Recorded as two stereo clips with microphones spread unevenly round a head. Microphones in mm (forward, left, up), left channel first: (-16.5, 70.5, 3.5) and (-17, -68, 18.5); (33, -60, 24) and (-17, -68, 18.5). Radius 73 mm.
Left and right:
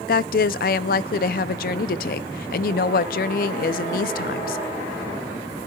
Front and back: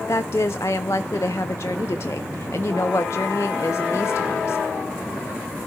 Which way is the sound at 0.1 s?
65° left.